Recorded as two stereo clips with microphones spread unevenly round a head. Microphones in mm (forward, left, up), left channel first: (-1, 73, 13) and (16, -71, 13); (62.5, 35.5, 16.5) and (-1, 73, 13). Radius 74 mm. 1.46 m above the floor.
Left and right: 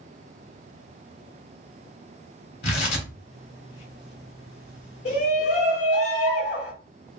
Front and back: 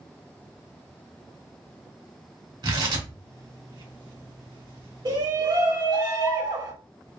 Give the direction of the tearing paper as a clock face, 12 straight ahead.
7 o'clock.